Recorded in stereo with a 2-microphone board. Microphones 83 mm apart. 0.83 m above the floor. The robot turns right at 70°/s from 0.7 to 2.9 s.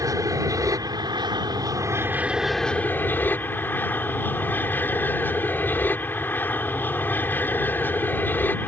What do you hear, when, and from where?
0.0 s an aircraft: 125° right; by 8.7 s 30° left